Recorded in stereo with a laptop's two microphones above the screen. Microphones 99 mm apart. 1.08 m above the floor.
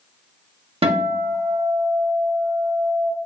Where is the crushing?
I don't hear crushing.